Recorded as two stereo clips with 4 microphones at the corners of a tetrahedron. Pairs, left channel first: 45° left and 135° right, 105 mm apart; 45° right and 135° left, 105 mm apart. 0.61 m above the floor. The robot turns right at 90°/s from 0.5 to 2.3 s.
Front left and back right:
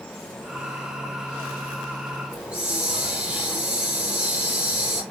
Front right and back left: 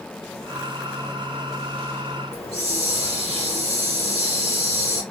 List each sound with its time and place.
2.3 s a hiss: 55° right, 2.5 m